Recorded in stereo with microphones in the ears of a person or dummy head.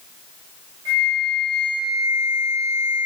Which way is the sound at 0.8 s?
30° right (ahead or behind).